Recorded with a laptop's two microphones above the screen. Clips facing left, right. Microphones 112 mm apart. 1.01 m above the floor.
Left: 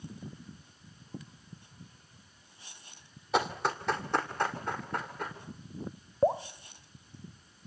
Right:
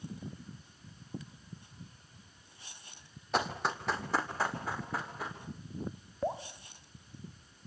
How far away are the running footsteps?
About 1.6 m.